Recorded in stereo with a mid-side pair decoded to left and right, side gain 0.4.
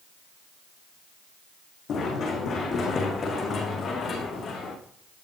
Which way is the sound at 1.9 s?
65° left.